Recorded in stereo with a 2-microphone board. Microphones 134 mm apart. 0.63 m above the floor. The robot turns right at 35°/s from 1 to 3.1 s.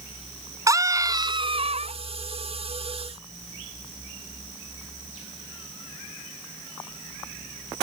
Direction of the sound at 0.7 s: 155° right.